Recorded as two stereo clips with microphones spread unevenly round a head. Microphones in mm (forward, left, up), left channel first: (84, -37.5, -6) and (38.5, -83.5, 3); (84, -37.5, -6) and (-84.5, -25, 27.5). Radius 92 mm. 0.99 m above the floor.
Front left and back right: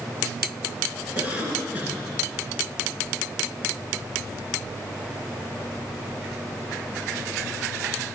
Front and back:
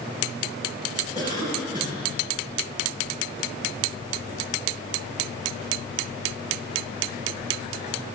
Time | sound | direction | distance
1.1 | a cough | 110° left | 9 m